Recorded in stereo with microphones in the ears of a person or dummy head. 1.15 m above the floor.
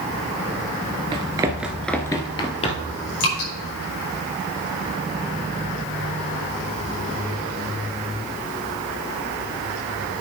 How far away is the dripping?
About 5 m.